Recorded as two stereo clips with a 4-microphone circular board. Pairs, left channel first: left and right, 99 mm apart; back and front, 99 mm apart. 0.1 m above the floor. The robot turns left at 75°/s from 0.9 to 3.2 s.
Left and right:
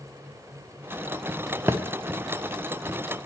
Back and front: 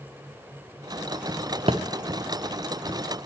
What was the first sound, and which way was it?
A thud, 25° right.